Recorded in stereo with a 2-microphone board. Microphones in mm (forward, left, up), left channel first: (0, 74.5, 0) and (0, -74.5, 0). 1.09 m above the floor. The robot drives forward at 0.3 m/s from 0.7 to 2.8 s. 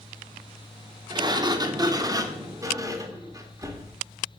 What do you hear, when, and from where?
1.1 s a sliding door: 30° right (ahead or behind), 0.7 m; by 4.0 s 20° right (ahead or behind), 0.9 m